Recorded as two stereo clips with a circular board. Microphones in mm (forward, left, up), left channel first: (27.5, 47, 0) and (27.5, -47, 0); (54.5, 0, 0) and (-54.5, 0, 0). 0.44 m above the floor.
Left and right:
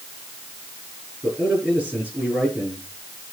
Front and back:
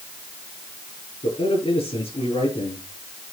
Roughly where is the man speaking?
Ahead.